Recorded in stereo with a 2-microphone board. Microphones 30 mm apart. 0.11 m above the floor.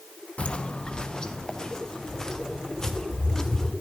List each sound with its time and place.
0.4 s footsteps: 40° left (ahead or behind), 0.6 m; by 3.7 s 15° left (ahead or behind), 3 m